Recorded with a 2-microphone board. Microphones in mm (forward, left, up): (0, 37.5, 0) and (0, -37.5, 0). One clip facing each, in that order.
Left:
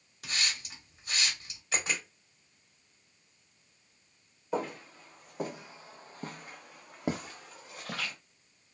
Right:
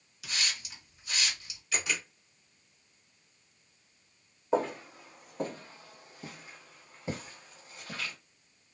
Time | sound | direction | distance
0.2 | a hiss | 40° left (ahead or behind) | 1.3 m
1.7 | a camera shutter | 35° left (ahead or behind) | 1.1 m
4.5 | footsteps | 25° right (ahead or behind) | 0.8 m